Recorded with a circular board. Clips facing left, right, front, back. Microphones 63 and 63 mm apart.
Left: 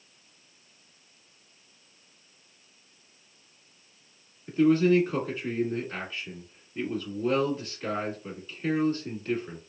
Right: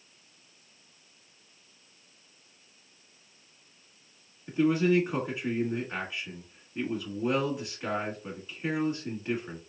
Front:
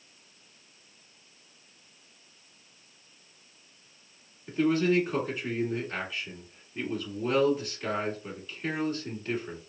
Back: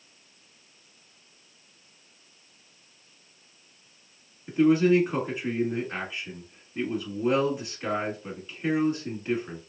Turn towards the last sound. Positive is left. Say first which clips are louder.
# left 3 dB, back 5 dB
turn(degrees=-140)